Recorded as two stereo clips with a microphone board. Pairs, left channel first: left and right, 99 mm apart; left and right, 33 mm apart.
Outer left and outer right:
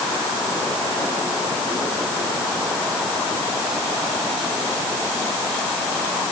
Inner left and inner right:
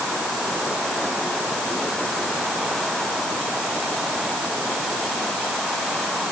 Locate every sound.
Only background noise.